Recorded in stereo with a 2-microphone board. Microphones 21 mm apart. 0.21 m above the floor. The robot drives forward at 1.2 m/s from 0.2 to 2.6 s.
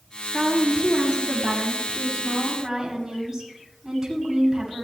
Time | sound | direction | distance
0.3 | a woman speaking | 30° right (ahead or behind) | 4.5 m